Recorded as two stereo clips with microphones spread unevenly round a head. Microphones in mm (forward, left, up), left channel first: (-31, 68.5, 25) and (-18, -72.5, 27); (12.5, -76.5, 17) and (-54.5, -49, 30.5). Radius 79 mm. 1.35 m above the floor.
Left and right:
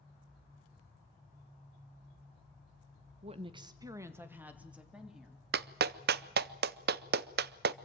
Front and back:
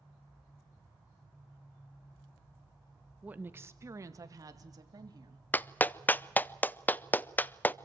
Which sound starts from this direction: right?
A clap, at 5.5 s.